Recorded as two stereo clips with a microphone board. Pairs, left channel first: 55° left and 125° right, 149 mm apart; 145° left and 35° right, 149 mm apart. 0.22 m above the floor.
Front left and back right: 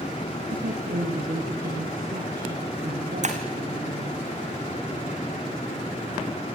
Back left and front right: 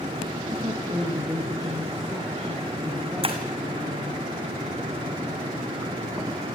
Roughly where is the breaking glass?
Right.